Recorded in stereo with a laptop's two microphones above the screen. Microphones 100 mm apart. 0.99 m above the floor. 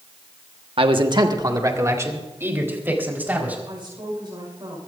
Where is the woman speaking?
50° right (ahead or behind), 5 m.